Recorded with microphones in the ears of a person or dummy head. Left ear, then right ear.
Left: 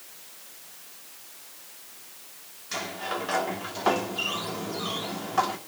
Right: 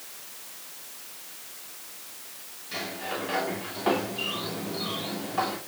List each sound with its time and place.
2.7 s a sliding door: 45° left (ahead or behind), 2.5 m